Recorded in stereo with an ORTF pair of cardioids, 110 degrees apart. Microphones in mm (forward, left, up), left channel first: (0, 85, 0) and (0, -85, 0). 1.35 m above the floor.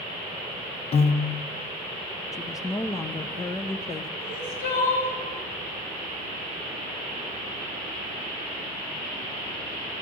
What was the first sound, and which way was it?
A piano, 40° left.